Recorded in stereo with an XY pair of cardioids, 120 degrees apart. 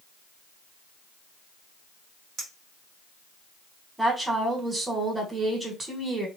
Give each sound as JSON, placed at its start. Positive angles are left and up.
{"t": 2.4, "sound": "a clink", "azimuth_deg": -70, "distance_m": 1.5}
{"t": 4.0, "sound": "a woman speaking", "azimuth_deg": -15, "distance_m": 1.3}